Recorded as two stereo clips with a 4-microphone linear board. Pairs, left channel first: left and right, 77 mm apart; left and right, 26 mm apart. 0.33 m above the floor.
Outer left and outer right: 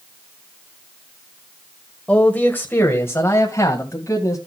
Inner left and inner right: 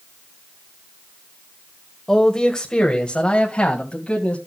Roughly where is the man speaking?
Centre.